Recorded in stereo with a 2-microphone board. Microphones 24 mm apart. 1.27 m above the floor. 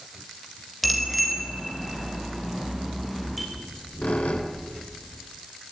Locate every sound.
0.8 s a bicycle bell: centre (ahead or behind), 4 m
3.5 s a squeak: 75° left (ahead or behind), 4 m